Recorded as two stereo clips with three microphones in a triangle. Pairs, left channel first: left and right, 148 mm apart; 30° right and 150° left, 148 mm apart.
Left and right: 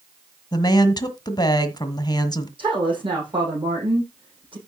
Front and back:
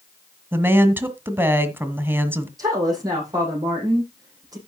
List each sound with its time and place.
0.5 s a woman speaking: 90° left, 1.4 m
2.6 s a woman speaking: 145° right, 7.5 m